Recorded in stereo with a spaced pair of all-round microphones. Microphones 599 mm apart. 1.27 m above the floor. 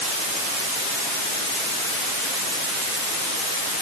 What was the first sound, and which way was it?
Only background noise.